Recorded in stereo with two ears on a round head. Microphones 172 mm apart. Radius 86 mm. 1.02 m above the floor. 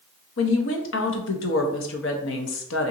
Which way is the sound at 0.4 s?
70° left (ahead or behind).